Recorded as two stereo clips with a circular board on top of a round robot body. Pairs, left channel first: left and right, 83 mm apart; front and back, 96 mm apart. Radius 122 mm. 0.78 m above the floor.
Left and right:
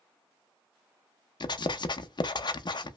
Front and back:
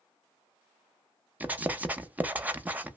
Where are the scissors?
No scissors in this recording.